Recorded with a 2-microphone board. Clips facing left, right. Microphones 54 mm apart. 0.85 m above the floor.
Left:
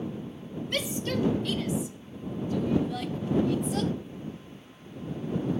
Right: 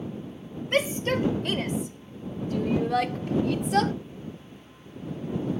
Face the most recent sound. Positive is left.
turn(degrees=-65)  # may be behind; listen again after turning